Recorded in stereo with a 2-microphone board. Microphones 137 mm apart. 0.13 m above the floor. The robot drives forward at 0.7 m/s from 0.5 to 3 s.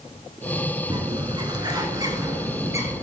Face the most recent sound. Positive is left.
turn(degrees=-20)  # may be behind; listen again after turning